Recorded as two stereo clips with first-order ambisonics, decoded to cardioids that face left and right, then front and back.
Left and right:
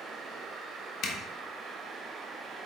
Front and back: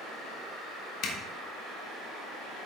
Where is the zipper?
40° left, 1.2 m.